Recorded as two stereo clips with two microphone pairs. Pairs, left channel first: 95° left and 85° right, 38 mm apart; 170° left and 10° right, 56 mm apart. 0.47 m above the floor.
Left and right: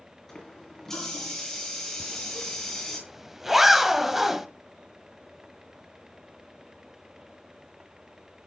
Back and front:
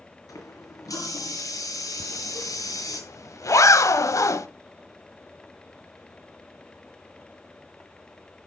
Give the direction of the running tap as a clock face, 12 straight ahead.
6 o'clock.